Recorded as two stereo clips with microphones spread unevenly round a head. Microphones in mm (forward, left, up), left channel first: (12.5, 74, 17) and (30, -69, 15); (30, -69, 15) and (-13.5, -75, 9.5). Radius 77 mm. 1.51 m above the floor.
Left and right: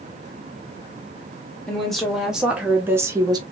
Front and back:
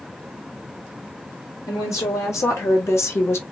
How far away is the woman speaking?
About 2 m.